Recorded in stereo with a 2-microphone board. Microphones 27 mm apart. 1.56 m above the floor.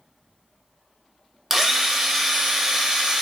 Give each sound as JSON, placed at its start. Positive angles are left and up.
{"t": 1.5, "sound": "a drill", "side_deg": -15, "distance_m": 0.9}